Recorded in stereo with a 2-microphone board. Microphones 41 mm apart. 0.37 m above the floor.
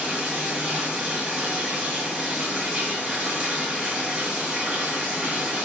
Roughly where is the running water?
Right.